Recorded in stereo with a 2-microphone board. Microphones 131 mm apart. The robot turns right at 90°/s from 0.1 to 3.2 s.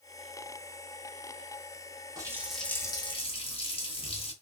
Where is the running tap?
35° right, 0.8 m; by 4.3 s 60° left, 0.8 m.